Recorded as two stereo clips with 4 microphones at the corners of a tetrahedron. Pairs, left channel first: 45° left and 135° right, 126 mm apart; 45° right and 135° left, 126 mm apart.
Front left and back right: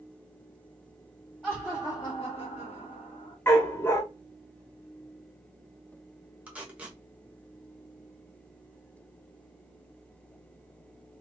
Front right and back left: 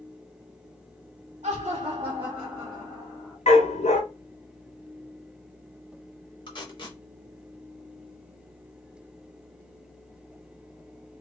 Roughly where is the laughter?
Behind left.